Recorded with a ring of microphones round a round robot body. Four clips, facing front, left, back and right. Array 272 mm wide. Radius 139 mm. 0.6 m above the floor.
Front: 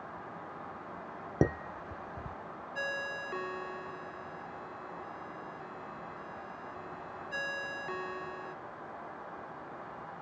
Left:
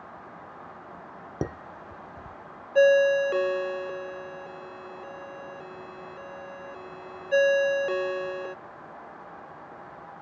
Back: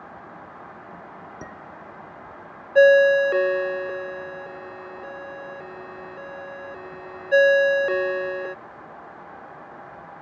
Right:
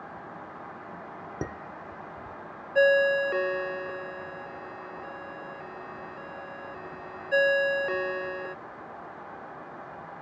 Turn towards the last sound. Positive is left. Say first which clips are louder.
# left 3 dB, back 26 dB
turn(degrees=170)